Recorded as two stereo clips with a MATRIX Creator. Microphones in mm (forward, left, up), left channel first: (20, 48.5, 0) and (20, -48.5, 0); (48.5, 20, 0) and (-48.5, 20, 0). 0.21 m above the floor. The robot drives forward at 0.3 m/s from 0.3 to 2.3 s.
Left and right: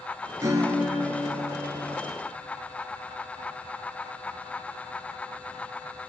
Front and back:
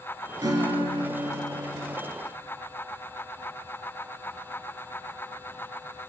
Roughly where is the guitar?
Behind right.